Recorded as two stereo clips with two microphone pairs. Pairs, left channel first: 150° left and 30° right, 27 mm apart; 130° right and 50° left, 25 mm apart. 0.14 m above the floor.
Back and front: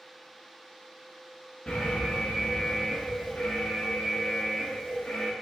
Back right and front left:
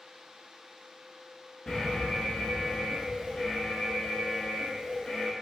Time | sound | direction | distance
1.7 | an alarm | 175° left | 1.2 m